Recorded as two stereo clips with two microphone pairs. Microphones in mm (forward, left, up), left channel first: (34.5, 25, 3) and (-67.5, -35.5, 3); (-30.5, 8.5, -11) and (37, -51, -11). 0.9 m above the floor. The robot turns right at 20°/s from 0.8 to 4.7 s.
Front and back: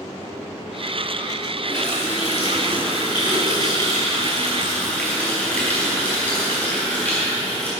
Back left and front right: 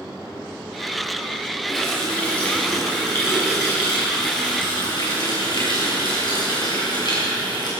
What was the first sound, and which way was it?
A running tap, 50° left.